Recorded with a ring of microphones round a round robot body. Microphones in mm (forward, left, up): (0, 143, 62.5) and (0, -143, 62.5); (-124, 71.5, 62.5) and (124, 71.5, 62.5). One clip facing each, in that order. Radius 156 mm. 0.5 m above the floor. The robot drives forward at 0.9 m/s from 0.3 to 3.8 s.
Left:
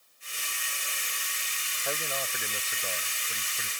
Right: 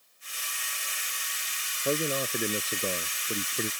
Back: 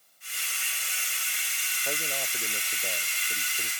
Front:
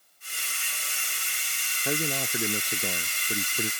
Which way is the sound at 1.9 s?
35° right.